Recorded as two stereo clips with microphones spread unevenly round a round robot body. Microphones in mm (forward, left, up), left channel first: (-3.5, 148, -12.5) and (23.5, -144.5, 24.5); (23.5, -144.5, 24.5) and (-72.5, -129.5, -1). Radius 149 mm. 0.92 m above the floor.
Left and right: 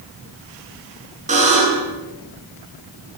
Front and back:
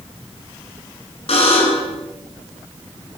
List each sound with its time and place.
1.3 s a buzzer: 20° right, 9.5 m